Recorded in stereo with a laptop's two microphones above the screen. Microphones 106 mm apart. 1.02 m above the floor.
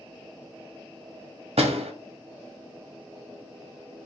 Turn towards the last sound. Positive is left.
turn(degrees=-80)